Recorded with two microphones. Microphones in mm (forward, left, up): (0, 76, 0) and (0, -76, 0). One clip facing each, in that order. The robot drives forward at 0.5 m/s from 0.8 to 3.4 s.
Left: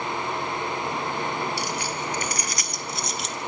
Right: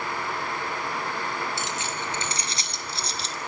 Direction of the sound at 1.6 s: 20° right (ahead or behind).